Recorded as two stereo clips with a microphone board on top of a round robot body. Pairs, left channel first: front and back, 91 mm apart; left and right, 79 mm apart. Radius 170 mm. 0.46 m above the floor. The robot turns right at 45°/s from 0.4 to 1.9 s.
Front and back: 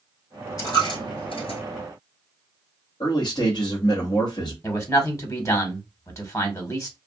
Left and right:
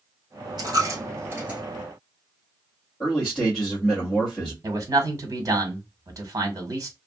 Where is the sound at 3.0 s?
10° left, 1.6 m.